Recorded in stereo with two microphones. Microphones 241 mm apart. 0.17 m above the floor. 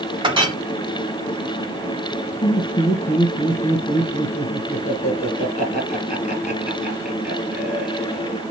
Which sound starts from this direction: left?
Laughter, at 2.4 s.